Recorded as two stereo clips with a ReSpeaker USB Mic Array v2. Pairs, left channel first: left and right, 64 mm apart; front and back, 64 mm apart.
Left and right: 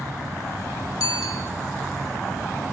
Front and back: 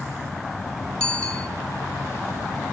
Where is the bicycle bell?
75° left, 3.5 m.